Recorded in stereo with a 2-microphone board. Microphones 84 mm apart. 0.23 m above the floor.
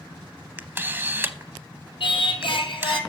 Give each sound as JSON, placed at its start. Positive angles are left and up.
{"t": 0.6, "sound": "a camera shutter", "side_deg": -25, "distance_m": 0.6}
{"t": 2.0, "sound": "singing", "side_deg": 70, "distance_m": 1.4}